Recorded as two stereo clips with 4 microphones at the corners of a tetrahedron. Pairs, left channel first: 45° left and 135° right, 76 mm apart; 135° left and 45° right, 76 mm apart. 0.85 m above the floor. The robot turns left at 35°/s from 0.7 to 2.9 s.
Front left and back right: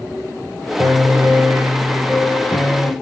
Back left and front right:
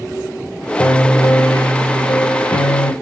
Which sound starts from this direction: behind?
A piano, at 0.8 s.